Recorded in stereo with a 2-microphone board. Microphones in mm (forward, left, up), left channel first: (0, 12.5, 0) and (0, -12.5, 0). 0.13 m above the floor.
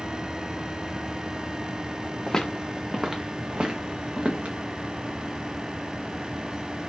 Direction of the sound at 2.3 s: 25° left (ahead or behind).